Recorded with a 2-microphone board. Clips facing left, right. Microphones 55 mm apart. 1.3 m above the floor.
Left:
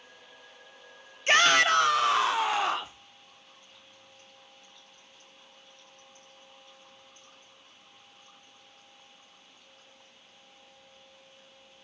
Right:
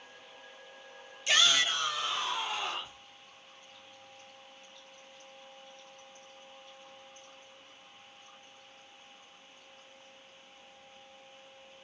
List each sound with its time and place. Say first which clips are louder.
1.3 s a shout: left 7 dB; 40° left (ahead or behind), 0.5 m; by 3.0 s 85° left, 1.2 m